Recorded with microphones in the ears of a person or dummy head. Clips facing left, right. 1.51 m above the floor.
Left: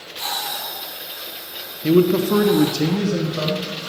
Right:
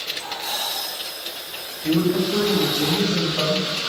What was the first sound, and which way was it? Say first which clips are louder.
A man speaking: left 5 dB; 45° left (ahead or behind).